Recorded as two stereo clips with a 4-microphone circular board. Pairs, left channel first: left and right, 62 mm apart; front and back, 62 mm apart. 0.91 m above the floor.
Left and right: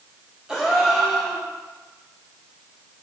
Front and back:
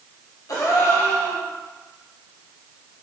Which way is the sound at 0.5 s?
10° right.